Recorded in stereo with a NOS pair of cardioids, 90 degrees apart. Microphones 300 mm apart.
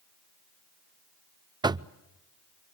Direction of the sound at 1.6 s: 15° right.